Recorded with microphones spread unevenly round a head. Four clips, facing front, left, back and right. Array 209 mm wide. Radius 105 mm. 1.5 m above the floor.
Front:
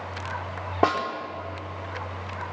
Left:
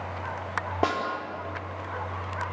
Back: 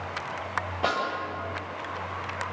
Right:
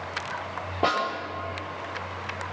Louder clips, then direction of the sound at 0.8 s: Right 2 dB, front 5 dB; 10° left.